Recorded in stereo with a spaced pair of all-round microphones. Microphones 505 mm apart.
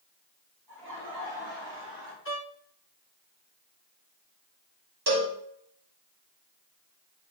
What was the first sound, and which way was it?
Laughter, 45° right (ahead or behind).